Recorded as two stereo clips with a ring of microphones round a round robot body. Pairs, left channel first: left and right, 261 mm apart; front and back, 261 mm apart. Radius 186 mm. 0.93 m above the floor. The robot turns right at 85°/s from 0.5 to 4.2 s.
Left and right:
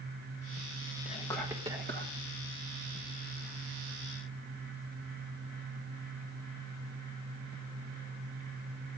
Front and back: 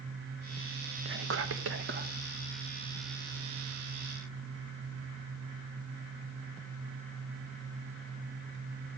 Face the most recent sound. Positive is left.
turn(degrees=55)